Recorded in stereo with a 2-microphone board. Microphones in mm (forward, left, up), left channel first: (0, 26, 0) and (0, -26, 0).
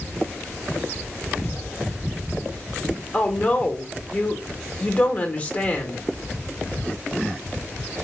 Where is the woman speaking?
35° left (ahead or behind), 1.1 m.